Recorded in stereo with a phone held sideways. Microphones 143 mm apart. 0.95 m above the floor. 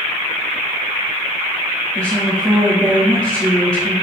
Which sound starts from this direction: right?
A woman speaking, at 1.9 s.